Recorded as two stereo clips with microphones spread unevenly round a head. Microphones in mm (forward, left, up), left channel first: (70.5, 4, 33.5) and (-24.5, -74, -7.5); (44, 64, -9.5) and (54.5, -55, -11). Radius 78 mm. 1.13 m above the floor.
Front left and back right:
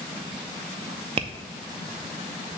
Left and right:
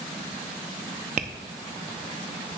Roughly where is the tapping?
Right.